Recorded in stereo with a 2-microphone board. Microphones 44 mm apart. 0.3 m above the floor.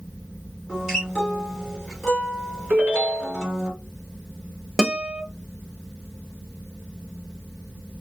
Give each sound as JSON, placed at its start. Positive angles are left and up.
{"t": 0.7, "sound": "a guitar", "side_deg": -10, "distance_m": 2.0}
{"t": 2.7, "sound": "a ringtone", "side_deg": -40, "distance_m": 1.9}
{"t": 4.8, "sound": "a guitar", "side_deg": -15, "distance_m": 0.6}